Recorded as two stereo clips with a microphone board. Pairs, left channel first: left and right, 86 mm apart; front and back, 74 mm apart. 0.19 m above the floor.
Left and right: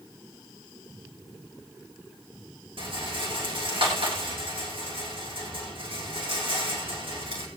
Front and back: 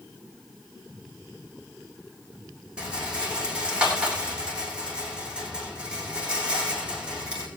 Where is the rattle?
105° right, 6.5 m.